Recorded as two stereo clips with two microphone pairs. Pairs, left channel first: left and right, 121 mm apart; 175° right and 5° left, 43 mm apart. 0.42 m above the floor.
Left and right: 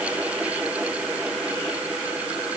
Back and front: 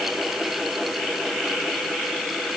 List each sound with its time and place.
Only background noise.